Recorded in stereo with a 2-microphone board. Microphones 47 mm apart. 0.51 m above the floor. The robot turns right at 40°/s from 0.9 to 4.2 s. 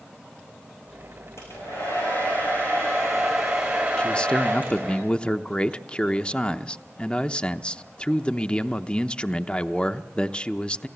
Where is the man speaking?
20° left (ahead or behind), 0.7 m; by 10.9 s 25° left (ahead or behind), 0.7 m.